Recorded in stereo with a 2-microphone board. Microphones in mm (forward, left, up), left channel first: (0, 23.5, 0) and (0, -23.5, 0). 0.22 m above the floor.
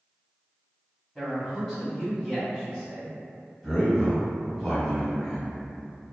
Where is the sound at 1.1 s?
20° left (ahead or behind), 1.2 m.